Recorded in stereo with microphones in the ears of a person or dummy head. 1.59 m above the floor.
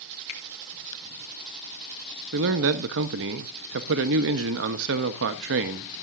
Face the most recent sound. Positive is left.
turn(degrees=-65)  # may be behind; listen again after turning